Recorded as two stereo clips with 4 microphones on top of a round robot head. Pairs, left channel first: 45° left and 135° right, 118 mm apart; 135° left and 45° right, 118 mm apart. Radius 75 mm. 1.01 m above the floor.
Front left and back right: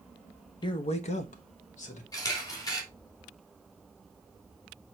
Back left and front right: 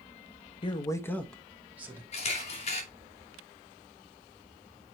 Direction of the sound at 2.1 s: 105° left.